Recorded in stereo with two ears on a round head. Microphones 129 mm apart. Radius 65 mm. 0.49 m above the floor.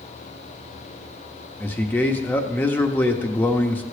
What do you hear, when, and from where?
1.6 s a man speaking: 15° left (ahead or behind), 0.8 m